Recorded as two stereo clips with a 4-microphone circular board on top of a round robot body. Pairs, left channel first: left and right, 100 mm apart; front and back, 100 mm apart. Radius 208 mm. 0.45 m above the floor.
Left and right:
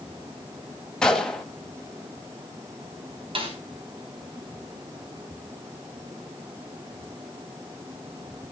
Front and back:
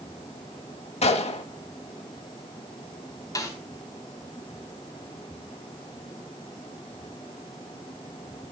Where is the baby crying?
I don't hear a baby crying.